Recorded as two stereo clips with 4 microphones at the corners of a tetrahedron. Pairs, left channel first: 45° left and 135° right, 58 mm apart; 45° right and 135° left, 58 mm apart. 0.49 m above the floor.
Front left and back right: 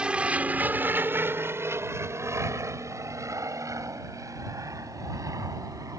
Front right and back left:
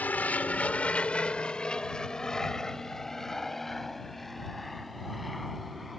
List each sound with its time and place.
0.0 s an aircraft: 75° right; by 6.0 s 135° right